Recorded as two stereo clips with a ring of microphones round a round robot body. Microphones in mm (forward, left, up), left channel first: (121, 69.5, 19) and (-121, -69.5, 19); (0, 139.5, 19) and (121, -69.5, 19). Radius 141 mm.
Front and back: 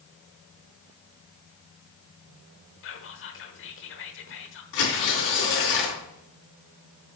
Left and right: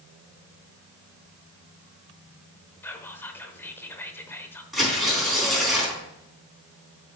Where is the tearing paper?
30° left, 4 m.